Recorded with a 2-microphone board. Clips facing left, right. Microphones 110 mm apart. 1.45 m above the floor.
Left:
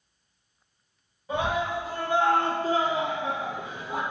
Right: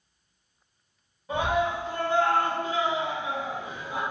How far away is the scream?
About 1.4 m.